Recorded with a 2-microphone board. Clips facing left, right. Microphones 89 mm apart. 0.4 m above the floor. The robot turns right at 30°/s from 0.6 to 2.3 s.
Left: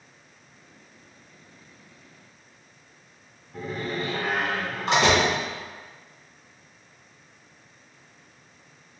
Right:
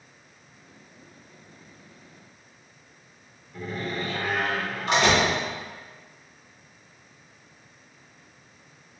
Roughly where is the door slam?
Left.